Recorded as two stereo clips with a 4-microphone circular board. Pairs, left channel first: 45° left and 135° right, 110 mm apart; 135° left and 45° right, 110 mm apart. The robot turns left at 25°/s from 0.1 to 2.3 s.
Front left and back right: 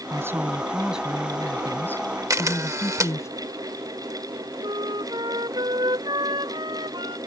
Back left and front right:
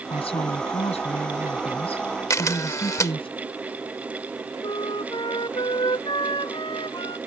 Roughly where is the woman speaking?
Behind.